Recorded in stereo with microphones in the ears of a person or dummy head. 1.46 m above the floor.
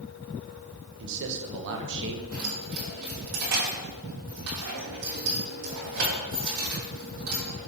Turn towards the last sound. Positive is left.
turn(degrees=-80)